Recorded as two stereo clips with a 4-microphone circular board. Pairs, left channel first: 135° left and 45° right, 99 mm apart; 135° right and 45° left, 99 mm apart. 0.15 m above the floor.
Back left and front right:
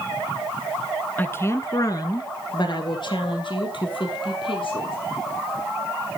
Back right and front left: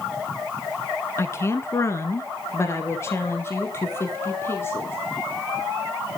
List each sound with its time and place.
1.2 s a woman speaking: 170° right, 1.2 m; by 5.0 s 160° left, 4 m